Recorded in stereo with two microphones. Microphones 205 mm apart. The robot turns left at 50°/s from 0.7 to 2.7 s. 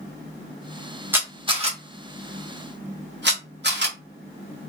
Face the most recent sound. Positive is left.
turn(degrees=-60)  # may be behind; listen again after turning